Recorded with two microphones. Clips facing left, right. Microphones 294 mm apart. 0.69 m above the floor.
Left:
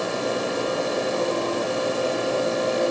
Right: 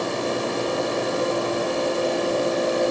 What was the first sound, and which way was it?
Only background noise.